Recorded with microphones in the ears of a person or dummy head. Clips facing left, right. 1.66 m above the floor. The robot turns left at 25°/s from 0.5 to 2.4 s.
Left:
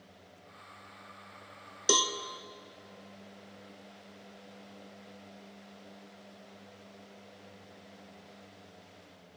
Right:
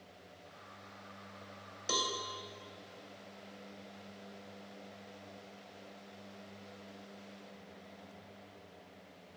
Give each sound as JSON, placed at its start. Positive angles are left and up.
{"t": 1.9, "sound": "a cowbell", "side_deg": 55, "distance_m": 0.5}